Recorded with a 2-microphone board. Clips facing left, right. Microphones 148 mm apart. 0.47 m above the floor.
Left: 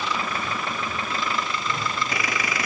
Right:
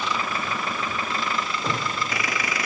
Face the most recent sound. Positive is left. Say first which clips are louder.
# right 1 dB
turn(degrees=-90)